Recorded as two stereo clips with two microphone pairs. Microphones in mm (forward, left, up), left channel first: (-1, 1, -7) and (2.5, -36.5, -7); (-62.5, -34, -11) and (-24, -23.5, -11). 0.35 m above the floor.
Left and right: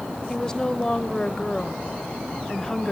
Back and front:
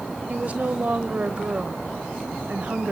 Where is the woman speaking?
35° left, 1.0 m.